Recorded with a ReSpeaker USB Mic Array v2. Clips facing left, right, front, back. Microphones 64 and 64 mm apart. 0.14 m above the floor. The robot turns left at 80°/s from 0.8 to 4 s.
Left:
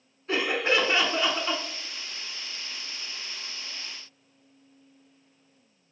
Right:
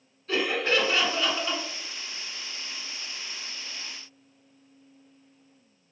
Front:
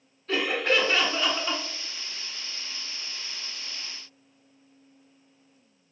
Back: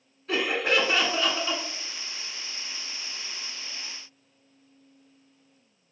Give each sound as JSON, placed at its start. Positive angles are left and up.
{"t": 0.3, "sound": "laughter", "azimuth_deg": 110, "distance_m": 1.1}